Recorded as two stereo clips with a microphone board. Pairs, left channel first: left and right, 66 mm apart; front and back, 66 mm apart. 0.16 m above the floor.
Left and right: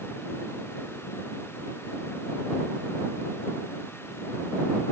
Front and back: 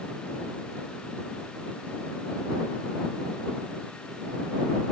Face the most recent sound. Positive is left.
No sound to turn to.